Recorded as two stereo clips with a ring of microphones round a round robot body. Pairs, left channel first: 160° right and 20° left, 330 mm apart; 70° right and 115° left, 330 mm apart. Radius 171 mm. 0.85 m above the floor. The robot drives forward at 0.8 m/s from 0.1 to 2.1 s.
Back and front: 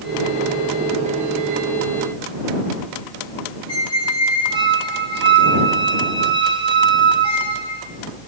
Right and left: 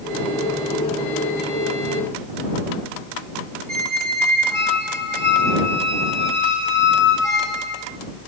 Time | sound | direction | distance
3.7 | a squeak | 100° left | 3.5 m